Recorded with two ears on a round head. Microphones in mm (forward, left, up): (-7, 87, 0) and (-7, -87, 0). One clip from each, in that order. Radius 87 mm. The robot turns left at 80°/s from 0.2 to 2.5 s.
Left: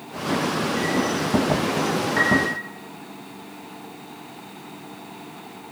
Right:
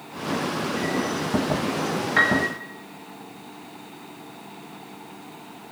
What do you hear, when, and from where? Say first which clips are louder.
2.2 s a piano: right 1 dB; 50° right (ahead or behind), 5.5 m; by 2.5 s 25° right (ahead or behind), 5.5 m